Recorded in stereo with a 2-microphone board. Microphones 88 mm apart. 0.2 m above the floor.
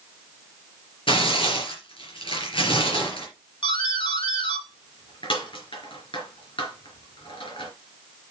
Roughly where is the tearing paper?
Left.